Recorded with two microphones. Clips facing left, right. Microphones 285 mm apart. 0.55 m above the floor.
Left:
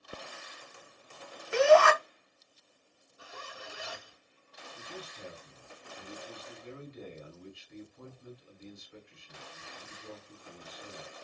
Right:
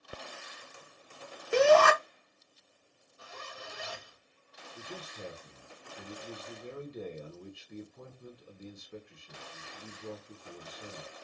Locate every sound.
1.5 s a shout: 45° right (ahead or behind), 0.8 m
3.2 s a zipper: 10° left (ahead or behind), 1.7 m
4.8 s a man speaking: 55° right (ahead or behind), 1.5 m